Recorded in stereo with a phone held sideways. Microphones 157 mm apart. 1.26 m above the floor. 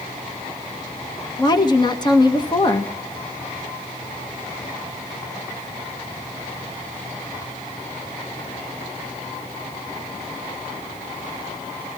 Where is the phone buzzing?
I don't hear a phone buzzing.